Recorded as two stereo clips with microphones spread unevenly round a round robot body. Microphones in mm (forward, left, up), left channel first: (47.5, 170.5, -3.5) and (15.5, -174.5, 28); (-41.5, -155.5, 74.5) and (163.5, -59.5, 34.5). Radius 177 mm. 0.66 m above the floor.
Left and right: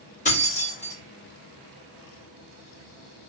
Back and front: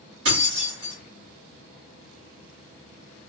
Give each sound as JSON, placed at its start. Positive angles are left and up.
{"t": 0.2, "sound": "keys jangling", "azimuth_deg": 15, "distance_m": 2.0}